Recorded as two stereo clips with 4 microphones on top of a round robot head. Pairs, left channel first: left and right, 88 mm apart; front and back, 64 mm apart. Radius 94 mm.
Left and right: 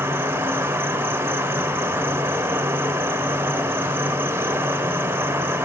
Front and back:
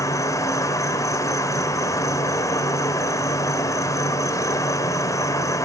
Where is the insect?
25° right, 1.4 m.